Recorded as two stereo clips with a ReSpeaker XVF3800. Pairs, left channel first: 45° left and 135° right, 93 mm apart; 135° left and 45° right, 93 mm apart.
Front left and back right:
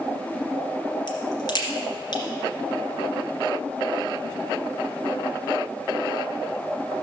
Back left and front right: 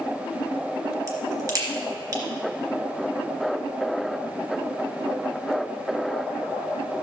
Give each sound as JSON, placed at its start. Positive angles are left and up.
{"t": 1.1, "sound": "a crack", "azimuth_deg": 5, "distance_m": 2.5}